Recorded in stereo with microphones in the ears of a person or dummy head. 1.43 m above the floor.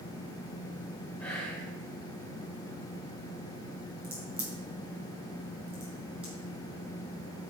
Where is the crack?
5° right (ahead or behind), 3 m.